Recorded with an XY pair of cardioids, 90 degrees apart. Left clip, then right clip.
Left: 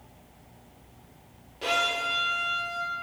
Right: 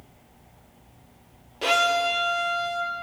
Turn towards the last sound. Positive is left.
turn(degrees=-55)